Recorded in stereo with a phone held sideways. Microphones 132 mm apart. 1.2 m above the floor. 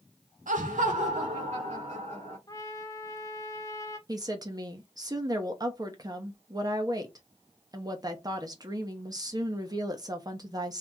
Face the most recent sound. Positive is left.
turn(degrees=-30)  # may be behind; listen again after turning